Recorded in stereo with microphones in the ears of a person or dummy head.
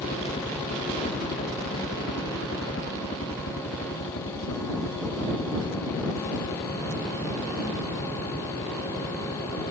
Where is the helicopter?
30° left (ahead or behind); by 9.7 s 50° left (ahead or behind).